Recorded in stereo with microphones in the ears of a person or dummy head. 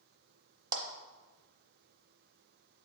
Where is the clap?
40° right (ahead or behind), 0.8 m.